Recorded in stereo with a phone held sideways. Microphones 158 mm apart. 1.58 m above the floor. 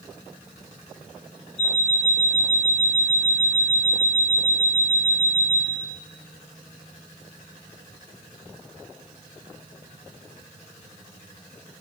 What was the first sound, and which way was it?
An alarm clock, 25° left (ahead or behind).